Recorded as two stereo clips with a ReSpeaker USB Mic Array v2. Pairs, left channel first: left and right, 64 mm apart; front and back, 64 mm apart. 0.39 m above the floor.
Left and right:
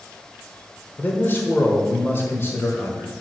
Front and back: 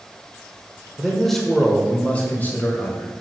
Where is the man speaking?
100° left, 1.1 m; by 3.1 s 45° left, 1.7 m.